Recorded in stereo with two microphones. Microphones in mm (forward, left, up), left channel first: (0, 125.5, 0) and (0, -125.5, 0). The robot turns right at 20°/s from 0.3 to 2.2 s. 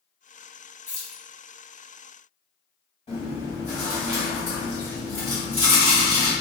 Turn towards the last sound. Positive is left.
turn(degrees=30)  # may be behind; listen again after turning